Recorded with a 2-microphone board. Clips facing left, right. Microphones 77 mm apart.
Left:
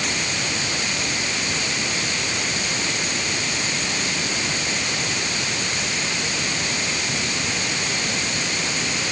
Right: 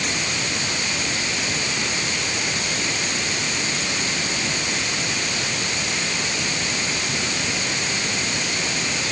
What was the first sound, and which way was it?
Only background noise.